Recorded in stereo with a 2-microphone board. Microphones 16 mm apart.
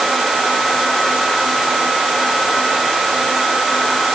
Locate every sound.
Only background noise.